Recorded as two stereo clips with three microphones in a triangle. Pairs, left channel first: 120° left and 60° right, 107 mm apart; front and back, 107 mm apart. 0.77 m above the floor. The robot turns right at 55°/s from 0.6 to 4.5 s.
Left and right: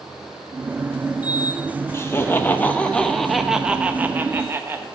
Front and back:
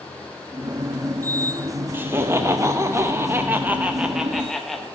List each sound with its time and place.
1.9 s laughter: 135° left, 0.6 m; by 4.9 s 85° right, 0.6 m